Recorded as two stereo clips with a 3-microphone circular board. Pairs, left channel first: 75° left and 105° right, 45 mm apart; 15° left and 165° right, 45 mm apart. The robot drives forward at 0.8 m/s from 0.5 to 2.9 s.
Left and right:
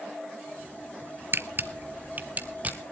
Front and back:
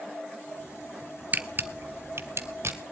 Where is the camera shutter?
120° right, 0.9 m; by 2.8 s 160° right, 1.7 m.